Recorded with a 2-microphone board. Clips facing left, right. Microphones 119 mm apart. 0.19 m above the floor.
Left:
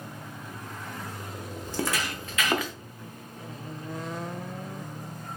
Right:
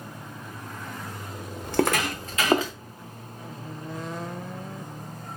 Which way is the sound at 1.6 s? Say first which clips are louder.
Right 7 dB; 70° right (ahead or behind).